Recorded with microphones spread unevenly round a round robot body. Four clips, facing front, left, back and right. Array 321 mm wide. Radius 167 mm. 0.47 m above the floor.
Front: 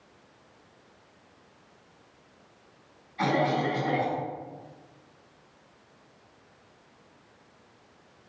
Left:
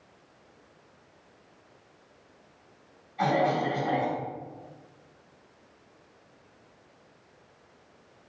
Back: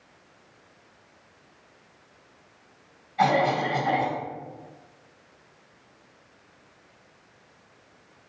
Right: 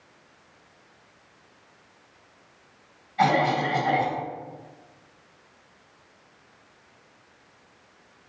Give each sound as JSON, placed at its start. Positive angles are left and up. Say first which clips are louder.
{"t": 3.2, "sound": "a cough", "louder": "right 3 dB, back 4 dB", "azimuth_deg": -130, "distance_m": 3.0}